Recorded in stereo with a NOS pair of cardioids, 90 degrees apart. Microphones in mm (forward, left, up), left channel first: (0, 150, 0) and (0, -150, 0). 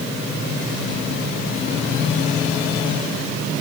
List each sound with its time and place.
Only background noise.